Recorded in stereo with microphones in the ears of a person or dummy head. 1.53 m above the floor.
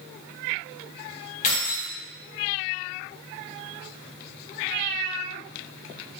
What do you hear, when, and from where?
1.4 s keys jangling: 35° left (ahead or behind), 0.9 m